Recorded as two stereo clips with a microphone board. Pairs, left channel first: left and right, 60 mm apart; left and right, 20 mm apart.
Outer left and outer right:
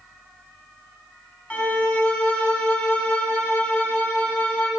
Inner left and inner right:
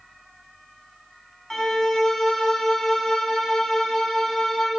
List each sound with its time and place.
1.5 s a violin: 25° left (ahead or behind), 0.9 m